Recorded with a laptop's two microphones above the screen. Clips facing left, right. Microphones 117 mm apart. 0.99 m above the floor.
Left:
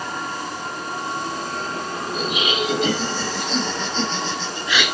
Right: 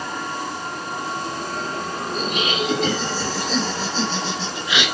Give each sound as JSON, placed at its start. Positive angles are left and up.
{"t": 2.1, "sound": "laughter", "side_deg": 10, "distance_m": 7.5}